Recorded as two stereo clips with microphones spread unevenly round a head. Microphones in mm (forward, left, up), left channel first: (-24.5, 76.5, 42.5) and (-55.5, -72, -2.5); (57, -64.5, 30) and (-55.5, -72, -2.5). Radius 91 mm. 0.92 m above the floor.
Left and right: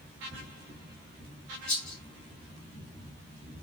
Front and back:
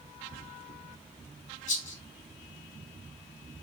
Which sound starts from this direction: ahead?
A rattle, at 1.7 s.